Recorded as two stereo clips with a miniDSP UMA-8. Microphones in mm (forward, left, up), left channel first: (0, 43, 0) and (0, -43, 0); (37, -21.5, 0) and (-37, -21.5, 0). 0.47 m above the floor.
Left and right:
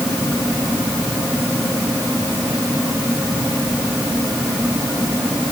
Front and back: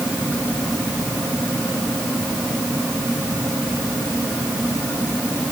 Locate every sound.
Only background noise.